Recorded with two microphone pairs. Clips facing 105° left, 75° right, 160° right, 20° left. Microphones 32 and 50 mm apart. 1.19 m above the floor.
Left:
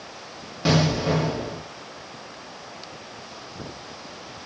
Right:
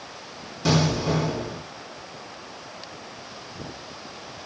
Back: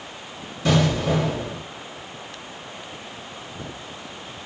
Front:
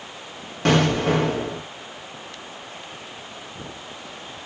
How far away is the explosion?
About 1.0 m.